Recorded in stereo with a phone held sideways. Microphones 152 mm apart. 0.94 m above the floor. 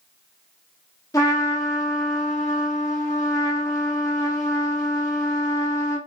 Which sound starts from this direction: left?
A trumpet, at 1.1 s.